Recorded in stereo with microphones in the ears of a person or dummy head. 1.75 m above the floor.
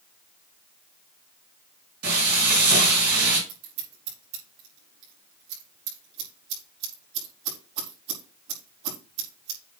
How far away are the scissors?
About 4 m.